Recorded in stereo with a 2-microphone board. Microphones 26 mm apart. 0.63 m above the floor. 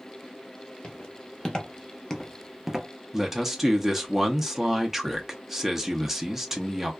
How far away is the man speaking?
About 0.6 m.